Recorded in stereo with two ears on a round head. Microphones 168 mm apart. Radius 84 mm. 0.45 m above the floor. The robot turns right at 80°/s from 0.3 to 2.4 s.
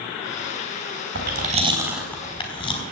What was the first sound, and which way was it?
Chewing, 65° right (ahead or behind).